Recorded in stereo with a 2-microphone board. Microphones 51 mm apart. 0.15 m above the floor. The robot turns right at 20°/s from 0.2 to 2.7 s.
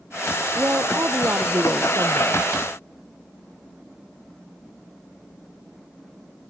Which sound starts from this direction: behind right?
A woman speaking, at 0.6 s.